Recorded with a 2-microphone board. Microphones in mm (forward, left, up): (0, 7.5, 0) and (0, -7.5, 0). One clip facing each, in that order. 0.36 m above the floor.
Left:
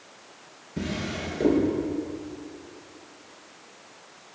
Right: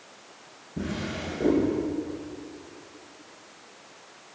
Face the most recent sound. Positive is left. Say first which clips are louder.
# left 1 dB
turn(degrees=80)